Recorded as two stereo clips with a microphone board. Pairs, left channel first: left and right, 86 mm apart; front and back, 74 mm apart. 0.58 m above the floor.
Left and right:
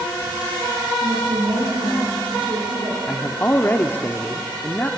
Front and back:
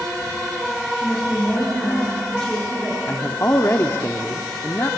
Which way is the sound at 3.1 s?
35° left.